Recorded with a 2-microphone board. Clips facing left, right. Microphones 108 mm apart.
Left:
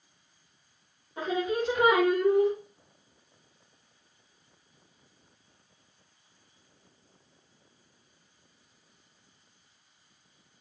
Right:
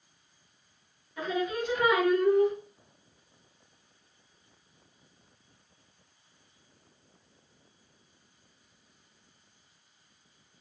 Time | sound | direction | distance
1.2 | singing | 35° left (ahead or behind) | 1.4 m